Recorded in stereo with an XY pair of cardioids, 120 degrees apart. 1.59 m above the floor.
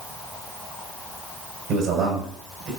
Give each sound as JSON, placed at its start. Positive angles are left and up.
{"t": 1.7, "sound": "a man speaking", "azimuth_deg": -70, "distance_m": 6.0}